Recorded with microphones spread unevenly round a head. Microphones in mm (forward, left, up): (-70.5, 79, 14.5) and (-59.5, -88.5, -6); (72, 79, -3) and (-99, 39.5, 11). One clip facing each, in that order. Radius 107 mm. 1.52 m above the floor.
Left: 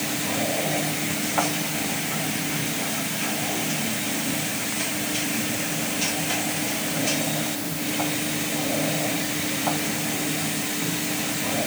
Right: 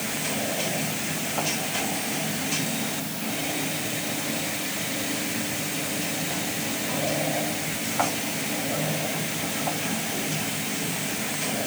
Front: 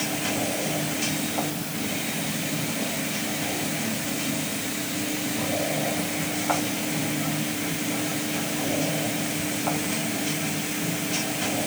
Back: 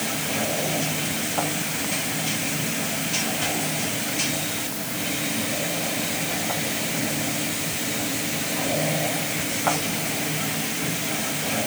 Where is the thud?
No thud in this recording.